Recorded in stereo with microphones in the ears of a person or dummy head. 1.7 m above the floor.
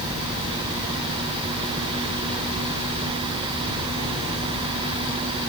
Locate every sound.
Only background noise.